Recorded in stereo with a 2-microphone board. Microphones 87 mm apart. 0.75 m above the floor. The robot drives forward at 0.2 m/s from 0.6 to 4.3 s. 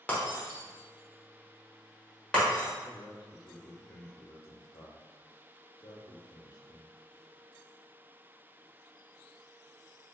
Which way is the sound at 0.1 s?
15° left (ahead or behind).